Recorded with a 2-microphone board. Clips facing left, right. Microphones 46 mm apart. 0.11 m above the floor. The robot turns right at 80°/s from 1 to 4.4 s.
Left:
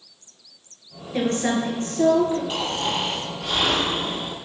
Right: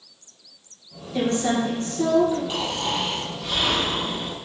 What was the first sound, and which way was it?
A woman speaking, 50° left.